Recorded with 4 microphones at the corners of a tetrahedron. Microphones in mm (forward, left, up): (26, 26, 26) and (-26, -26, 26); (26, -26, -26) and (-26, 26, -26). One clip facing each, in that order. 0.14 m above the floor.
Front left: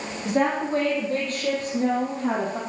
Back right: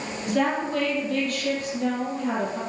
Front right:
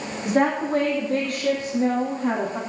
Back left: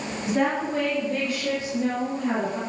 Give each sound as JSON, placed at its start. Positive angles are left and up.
{"t": 0.2, "sound": "a woman speaking", "azimuth_deg": -20, "distance_m": 5.0}